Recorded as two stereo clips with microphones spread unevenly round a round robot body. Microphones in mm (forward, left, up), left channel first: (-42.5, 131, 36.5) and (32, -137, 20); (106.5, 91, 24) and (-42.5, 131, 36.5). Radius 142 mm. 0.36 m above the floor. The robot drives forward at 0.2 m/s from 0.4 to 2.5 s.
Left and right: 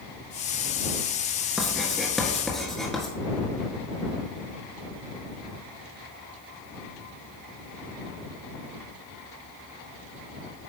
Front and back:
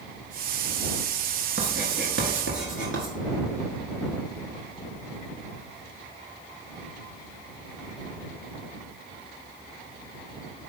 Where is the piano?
I don't hear a piano.